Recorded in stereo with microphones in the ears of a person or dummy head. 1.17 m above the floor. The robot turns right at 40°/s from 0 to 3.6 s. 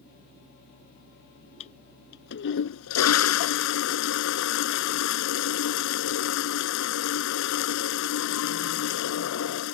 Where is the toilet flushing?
40° left; by 9.8 s 120° left.